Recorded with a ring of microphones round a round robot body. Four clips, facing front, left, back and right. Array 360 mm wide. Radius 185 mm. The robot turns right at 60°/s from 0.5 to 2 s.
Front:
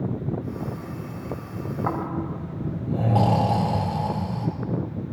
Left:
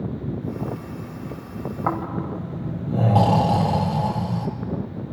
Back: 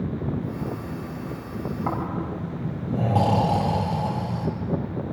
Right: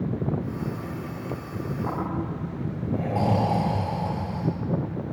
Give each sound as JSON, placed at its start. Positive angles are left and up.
{"t": 1.9, "sound": "snoring", "azimuth_deg": 80, "distance_m": 6.0}